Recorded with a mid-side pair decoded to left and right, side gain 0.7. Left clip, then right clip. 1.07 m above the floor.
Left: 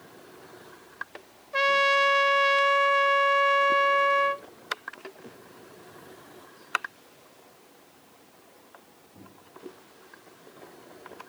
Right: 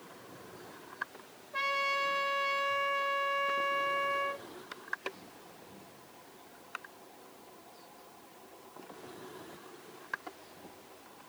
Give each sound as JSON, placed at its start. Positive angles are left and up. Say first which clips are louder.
{"t": 1.5, "sound": "a trumpet", "louder": "left 10 dB", "azimuth_deg": 45, "distance_m": 0.6}